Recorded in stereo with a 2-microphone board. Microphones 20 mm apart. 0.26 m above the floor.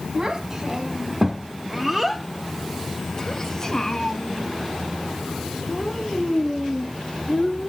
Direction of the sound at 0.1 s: 25° right (ahead or behind).